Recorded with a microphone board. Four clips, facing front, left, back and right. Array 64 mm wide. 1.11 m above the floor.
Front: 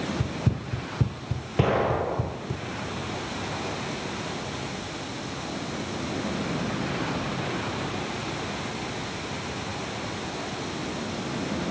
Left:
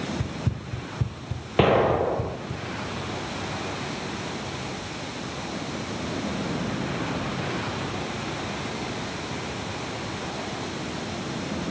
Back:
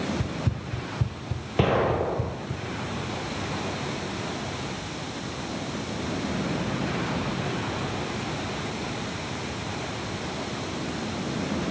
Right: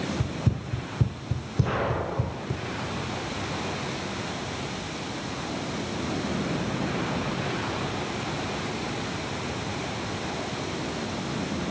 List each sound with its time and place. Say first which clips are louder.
0.2 s running footsteps: right 2 dB, front 1 dB; 20° right, 1.8 m; by 2.6 s 50° right, 4 m
1.6 s an explosion: left 8 dB, back 1 dB; 95° left, 7.5 m